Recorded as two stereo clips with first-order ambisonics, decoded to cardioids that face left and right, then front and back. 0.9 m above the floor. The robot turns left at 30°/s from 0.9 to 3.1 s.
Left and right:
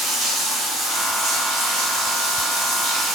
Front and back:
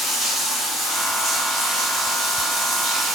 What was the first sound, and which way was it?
Running water, 50° right.